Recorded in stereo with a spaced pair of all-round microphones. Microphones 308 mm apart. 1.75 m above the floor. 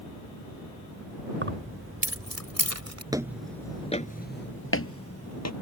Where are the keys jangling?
40° right (ahead or behind); by 3.0 s 60° right (ahead or behind).